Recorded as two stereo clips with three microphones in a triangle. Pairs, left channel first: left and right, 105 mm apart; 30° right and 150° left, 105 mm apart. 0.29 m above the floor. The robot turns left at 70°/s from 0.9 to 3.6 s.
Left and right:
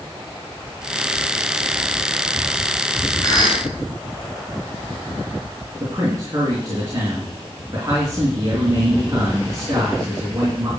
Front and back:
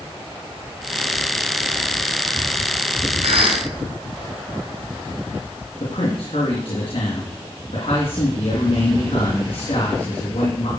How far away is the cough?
About 3.5 m.